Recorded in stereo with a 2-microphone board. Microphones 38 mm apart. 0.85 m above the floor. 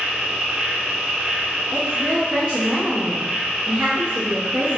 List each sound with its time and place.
0.0 s an insect: 50° right (ahead or behind), 1.0 m
1.7 s a woman speaking: 45° right (ahead or behind), 1.0 m